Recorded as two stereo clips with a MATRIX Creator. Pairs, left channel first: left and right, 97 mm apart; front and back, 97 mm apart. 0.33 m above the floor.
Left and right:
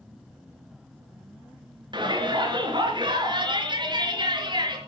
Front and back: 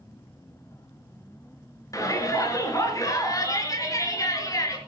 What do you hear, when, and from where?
1.9 s a shout: 55° right, 4.5 m